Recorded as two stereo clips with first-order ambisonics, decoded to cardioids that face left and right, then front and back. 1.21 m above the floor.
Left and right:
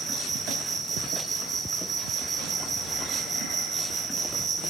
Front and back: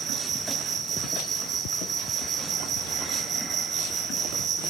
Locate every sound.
0.0 s an insect: 145° right, 0.8 m